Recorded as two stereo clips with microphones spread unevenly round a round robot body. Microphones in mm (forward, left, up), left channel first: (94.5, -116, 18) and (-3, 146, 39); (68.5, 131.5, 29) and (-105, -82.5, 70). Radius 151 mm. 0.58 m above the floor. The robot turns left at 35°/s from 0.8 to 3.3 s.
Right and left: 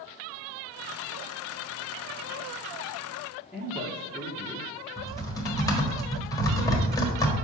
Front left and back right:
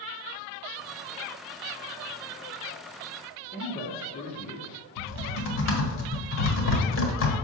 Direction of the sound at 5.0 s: 10° left.